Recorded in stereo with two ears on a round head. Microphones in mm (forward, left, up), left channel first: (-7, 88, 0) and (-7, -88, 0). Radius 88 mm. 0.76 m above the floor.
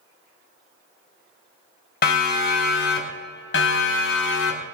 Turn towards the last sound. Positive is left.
turn(degrees=70)  # may be behind; listen again after turning